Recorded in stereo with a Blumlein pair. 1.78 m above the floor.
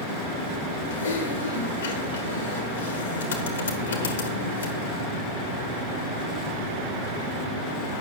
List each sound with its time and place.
0.9 s typing on a keyboard: 70° left, 1.4 m